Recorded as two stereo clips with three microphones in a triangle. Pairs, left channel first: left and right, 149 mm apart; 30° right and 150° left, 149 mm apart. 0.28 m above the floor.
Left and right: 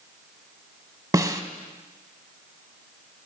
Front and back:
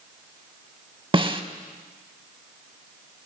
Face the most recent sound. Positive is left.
turn(degrees=-155)